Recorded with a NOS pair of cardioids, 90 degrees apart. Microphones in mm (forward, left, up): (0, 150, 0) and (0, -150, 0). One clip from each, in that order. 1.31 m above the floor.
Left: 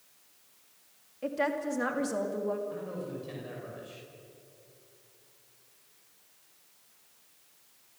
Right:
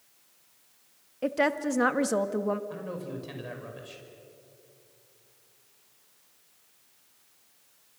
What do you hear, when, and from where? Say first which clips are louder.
1.2 s a woman speaking: right 4 dB; 50° right, 1.9 m
2.7 s a man speaking: right 1 dB; 45° right, 6 m